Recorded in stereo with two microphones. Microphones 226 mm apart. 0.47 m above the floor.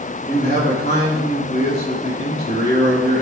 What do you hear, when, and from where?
0.3 s a man speaking: 35° left (ahead or behind), 5 m